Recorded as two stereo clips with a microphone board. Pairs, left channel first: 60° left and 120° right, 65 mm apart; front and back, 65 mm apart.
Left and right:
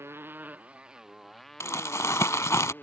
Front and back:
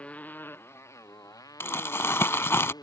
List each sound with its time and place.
0.0 s a motorcycle: 70° right; by 2.8 s straight ahead
1.6 s crumpling: 40° left